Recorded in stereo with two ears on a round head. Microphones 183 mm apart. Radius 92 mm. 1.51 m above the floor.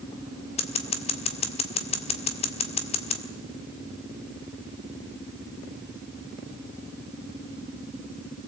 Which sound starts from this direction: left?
Scissors, at 0.6 s.